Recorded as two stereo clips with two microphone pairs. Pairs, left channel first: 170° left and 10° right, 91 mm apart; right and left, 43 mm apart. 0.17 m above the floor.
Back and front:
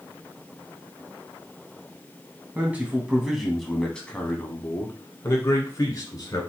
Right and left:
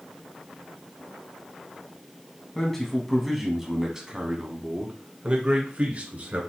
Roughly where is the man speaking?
Ahead right.